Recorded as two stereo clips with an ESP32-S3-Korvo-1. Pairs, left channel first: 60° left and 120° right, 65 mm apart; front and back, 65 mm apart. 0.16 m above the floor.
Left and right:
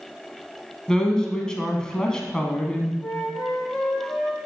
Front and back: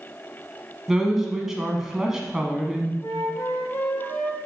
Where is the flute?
10° right, 3.5 m.